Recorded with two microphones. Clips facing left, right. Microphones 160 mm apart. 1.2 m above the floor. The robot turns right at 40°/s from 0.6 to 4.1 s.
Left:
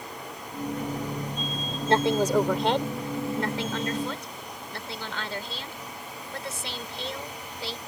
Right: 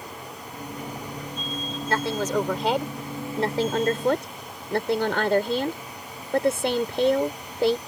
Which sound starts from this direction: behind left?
A woman speaking, at 1.9 s.